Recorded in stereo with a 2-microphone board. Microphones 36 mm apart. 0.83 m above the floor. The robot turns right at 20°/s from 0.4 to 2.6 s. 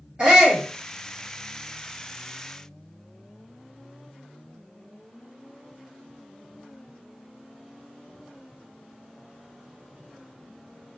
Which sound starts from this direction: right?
A shout, at 0.2 s.